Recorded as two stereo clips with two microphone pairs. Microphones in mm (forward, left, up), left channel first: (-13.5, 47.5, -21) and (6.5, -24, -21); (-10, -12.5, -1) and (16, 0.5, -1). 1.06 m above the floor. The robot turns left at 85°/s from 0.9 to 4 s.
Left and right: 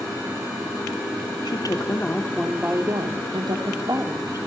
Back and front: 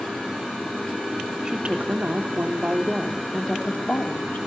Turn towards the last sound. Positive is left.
turn(degrees=-125)